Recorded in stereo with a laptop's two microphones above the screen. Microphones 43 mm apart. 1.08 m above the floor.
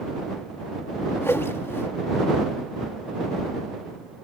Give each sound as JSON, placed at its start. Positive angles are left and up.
{"t": 1.2, "sound": "a whoosh", "side_deg": 75}